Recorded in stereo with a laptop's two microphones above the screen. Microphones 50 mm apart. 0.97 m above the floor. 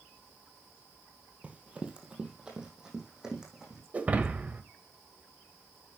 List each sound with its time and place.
1.4 s running footsteps: 25° right (ahead or behind), 1.8 m; by 3.8 s 10° right (ahead or behind), 3.5 m
3.9 s breaking glass: 30° right (ahead or behind), 1.7 m